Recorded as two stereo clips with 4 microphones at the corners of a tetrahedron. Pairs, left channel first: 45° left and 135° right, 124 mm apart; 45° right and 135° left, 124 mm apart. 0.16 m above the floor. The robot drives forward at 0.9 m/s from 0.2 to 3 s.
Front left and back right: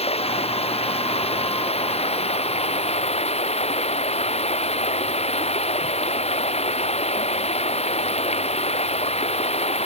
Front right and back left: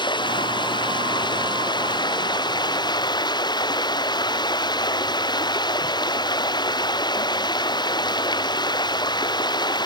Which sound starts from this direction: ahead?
Running water, at 0.0 s.